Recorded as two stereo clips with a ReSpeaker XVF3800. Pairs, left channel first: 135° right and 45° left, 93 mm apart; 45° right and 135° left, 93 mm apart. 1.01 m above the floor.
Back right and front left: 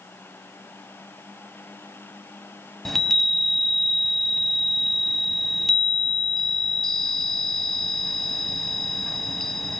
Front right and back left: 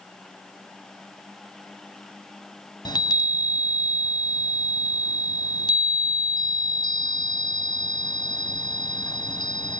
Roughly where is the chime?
Ahead right.